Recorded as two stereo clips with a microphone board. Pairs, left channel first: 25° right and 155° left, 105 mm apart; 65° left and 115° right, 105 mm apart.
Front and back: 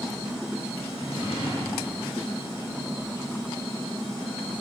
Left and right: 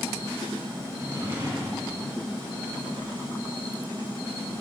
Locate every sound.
0.9 s a drawer: 45° right, 2.0 m